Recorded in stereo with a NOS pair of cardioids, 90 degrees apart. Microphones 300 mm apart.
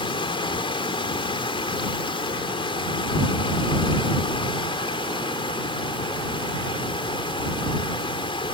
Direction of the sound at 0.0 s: 15° left.